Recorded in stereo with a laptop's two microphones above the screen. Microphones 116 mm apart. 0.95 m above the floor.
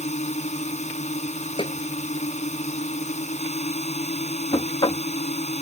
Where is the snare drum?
45° left (ahead or behind).